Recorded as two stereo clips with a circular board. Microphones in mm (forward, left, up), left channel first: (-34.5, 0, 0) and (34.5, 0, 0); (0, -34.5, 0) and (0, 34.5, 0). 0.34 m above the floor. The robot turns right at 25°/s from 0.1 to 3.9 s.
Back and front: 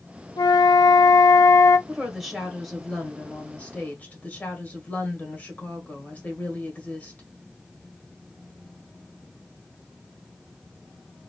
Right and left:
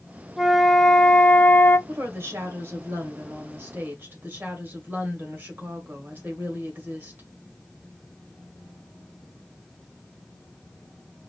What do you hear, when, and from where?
0.4 s a flute: 175° left, 0.5 m; by 1.8 s 150° right, 0.5 m
1.9 s a woman speaking: 75° left, 1.6 m; by 7.3 s 125° left, 1.6 m